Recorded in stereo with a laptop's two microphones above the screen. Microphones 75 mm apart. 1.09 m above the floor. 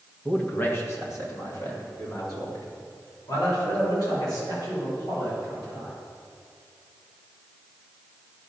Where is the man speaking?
15° left (ahead or behind), 0.9 m; by 6.0 s 65° left (ahead or behind), 6.5 m.